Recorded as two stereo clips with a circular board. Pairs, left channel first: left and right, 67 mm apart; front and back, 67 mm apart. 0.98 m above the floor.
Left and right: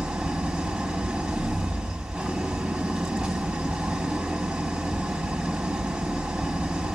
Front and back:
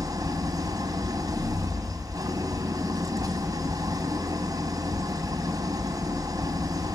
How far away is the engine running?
About 2.5 m.